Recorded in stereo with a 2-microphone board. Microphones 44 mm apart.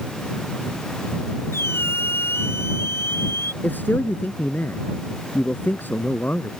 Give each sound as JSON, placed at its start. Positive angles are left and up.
{"t": 1.5, "sound": "a squeak", "side_deg": 65}
{"t": 3.6, "sound": "a man speaking", "side_deg": 50}